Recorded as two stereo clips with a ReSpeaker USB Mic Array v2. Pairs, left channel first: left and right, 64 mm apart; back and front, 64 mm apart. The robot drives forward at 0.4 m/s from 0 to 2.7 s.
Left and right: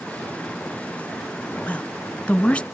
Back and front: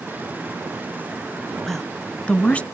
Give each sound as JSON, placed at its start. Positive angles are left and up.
{"t": 1.7, "sound": "a woman speaking", "azimuth_deg": 105, "distance_m": 1.0}